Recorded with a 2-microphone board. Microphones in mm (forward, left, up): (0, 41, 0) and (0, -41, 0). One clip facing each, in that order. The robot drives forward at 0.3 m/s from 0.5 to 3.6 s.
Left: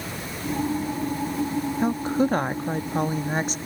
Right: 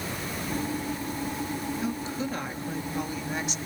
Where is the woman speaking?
45° left (ahead or behind), 0.7 m; by 3.6 s 40° left (ahead or behind), 0.8 m.